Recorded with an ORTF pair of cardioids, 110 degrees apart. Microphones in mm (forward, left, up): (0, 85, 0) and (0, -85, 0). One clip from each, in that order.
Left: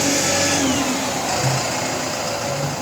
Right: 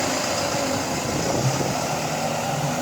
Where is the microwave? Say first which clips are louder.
Left 3 dB; 5° right, 3.5 m.